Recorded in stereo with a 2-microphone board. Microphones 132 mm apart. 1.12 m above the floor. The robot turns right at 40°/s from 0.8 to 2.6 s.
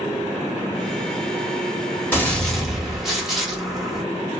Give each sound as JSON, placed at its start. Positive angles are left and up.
{"t": 2.1, "sound": "a gunshot", "side_deg": 15, "distance_m": 1.0}